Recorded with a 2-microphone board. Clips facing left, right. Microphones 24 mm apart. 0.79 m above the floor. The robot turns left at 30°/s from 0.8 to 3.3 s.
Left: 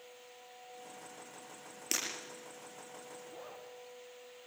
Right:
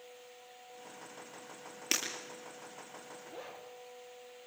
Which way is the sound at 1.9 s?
25° right (ahead or behind).